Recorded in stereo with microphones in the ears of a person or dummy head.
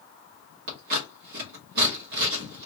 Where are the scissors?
55° right (ahead or behind), 1.1 m.